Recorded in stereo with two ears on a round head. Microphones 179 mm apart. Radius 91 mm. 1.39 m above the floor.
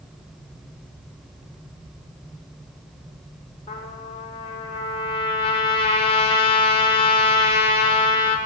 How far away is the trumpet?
About 4.5 m.